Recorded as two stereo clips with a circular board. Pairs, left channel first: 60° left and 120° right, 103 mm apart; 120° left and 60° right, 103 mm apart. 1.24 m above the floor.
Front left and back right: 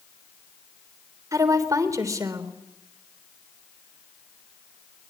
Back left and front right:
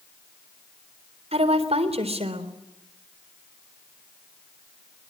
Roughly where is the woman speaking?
Ahead right.